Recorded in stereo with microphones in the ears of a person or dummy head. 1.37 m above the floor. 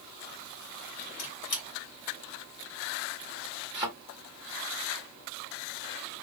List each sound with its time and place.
1.2 s a squeak: 45° left (ahead or behind), 1.1 m
3.7 s a thud: 5° right (ahead or behind), 1.3 m